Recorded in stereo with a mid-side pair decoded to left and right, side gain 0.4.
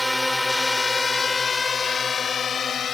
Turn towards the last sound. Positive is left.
turn(degrees=60)